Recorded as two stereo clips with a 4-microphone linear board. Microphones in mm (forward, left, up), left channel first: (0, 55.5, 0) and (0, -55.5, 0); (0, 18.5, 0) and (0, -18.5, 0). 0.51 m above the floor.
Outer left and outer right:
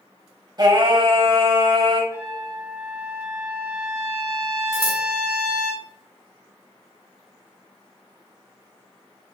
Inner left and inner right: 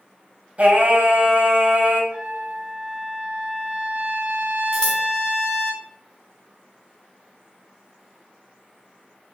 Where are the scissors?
20° left (ahead or behind), 3.5 m.